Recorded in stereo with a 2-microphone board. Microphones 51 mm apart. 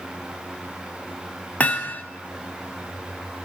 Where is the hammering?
30° left (ahead or behind), 1.8 m.